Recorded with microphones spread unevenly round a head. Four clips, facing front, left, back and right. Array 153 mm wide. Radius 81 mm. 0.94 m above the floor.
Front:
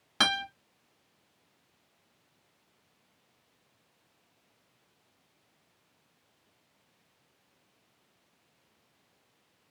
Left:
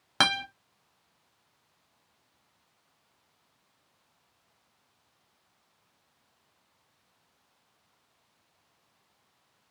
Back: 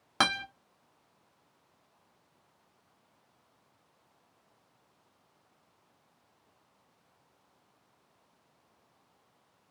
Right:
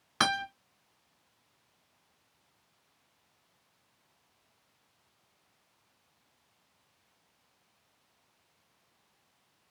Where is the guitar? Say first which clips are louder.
Left 1 dB, back 1 dB; 120° left, 1.2 m.